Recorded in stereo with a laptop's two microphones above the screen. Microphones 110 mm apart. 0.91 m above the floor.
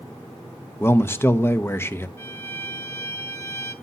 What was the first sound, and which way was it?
A man speaking, 20° left (ahead or behind).